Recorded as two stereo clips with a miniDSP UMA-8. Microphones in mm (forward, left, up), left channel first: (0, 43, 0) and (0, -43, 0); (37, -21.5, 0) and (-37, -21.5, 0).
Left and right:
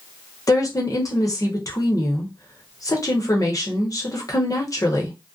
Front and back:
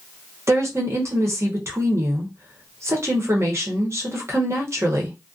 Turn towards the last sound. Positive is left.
turn(degrees=135)